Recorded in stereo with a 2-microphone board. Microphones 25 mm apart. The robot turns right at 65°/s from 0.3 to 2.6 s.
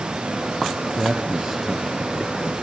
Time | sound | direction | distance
1.0 | a man speaking | 65° right | 1.9 m